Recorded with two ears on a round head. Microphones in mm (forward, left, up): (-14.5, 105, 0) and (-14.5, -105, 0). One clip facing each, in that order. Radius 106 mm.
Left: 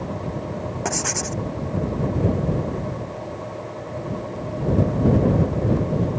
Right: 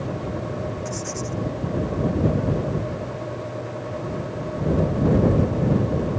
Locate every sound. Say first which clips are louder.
0.8 s writing: left 2 dB; 80° left